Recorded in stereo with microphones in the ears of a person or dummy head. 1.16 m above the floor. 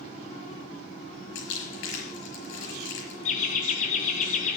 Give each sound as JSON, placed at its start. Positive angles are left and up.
{"t": 1.4, "sound": "crumpling", "side_deg": 80, "distance_m": 5.5}
{"t": 3.2, "sound": "laughter", "side_deg": 45, "distance_m": 1.5}